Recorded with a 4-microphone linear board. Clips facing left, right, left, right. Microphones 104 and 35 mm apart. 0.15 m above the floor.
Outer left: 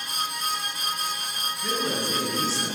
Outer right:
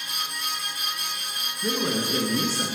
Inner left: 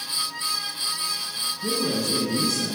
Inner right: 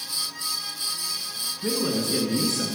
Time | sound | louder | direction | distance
1.6 | a man speaking | outer right 2 dB, even | 35° right (ahead or behind) | 1.6 m